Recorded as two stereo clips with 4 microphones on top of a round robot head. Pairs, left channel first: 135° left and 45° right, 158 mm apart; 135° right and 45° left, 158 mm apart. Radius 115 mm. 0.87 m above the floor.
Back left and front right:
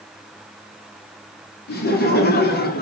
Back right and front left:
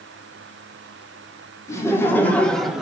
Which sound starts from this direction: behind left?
Laughter, at 1.7 s.